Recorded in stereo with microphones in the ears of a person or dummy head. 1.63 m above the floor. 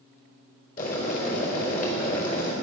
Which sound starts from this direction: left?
Boiling, at 0.8 s.